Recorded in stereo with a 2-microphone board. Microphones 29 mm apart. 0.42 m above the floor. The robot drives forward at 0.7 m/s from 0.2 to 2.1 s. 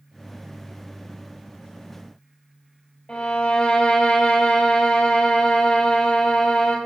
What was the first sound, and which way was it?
A violin, 40° left (ahead or behind).